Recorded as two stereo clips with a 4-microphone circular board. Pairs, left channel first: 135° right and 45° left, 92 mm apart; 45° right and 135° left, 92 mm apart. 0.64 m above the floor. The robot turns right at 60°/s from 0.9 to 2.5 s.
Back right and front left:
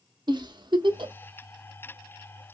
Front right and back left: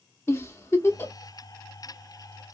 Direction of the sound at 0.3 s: 15° left.